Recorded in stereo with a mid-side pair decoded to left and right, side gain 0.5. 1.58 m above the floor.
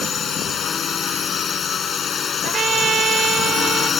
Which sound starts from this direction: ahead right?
A trumpet, at 2.4 s.